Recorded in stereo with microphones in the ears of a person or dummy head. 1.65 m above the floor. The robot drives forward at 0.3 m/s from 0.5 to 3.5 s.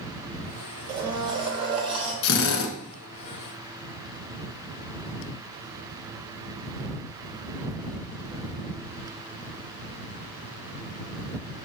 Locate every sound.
0.9 s a blender: 25° right (ahead or behind), 1.2 m; by 2.1 s 30° right (ahead or behind), 1.1 m
2.2 s a drill: 80° left, 2 m